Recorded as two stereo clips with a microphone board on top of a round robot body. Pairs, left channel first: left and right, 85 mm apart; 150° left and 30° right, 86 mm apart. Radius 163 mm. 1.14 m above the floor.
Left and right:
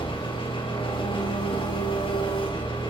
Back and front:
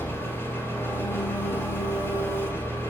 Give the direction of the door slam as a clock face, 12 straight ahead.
No door slam in this recording.